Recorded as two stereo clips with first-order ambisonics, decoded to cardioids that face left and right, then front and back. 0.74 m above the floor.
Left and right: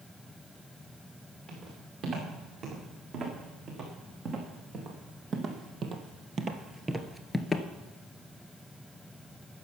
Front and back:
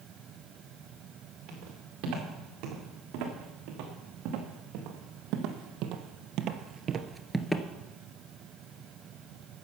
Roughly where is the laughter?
I don't hear laughter.